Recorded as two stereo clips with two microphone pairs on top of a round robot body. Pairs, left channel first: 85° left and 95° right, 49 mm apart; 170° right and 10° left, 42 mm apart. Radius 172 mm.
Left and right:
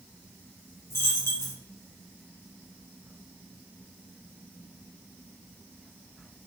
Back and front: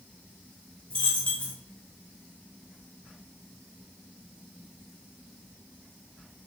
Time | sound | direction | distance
0.9 | a dropped coin | 120° left | 0.6 m